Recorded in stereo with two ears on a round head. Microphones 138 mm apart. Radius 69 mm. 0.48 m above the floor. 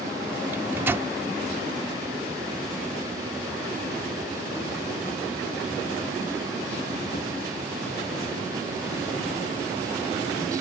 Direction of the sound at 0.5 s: 15° right (ahead or behind).